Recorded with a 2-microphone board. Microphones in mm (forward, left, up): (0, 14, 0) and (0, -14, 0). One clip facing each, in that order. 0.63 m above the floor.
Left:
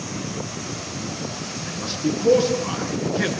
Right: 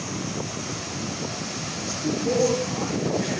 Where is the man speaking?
60° left (ahead or behind), 7.5 m.